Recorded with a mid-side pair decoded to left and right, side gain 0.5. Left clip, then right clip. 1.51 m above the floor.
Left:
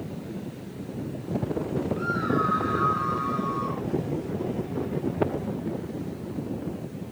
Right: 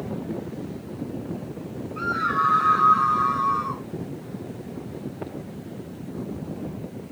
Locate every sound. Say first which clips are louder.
2.0 s a scream: right 5 dB; 55° right, 2 m; by 3.8 s 50° right, 3.5 m